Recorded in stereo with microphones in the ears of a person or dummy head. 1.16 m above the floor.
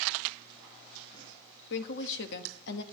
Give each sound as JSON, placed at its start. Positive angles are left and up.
{"t": 1.7, "sound": "a woman speaking", "side_deg": 65, "distance_m": 1.3}